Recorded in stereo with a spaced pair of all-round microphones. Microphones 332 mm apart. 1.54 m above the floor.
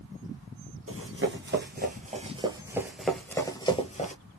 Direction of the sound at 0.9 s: 40° right (ahead or behind).